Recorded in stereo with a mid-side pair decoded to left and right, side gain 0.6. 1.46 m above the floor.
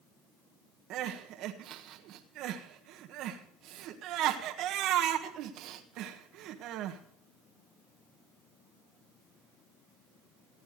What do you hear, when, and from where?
0.9 s crying: 65° right, 1.5 m